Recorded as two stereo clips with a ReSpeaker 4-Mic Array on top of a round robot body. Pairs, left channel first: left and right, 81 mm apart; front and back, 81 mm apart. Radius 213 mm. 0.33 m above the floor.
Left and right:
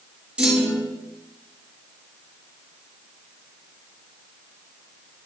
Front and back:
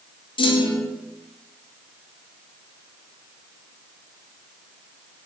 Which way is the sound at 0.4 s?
15° right.